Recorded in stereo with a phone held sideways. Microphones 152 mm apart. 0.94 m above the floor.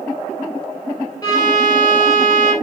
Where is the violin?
25° left (ahead or behind), 4 m.